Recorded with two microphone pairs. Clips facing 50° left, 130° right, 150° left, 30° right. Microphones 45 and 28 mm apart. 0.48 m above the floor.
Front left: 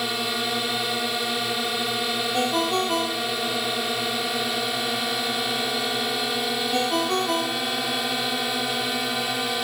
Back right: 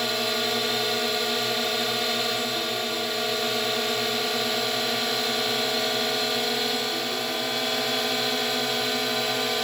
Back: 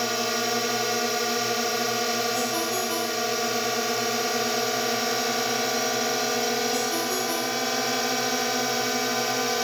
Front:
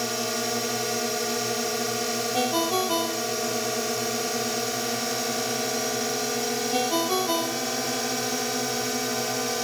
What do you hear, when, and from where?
0.0 s a drone: 115° left
2.3 s a ringtone: 25° left